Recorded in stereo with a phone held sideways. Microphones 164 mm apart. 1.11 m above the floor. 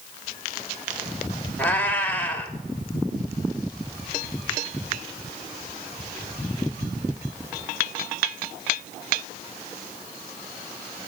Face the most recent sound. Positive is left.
turn(degrees=10)  # may be behind; listen again after turning